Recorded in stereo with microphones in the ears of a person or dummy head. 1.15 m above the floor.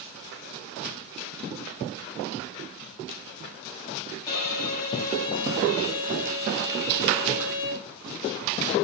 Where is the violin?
20° left (ahead or behind), 1.7 m.